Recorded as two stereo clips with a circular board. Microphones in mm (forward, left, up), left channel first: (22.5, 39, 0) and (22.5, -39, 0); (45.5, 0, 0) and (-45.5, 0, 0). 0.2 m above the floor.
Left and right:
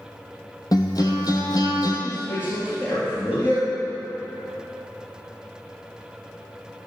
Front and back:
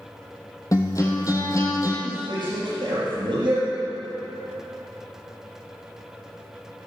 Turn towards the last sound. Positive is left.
turn(degrees=150)